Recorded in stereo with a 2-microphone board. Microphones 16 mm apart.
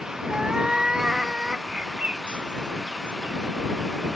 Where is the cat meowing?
40° right (ahead or behind).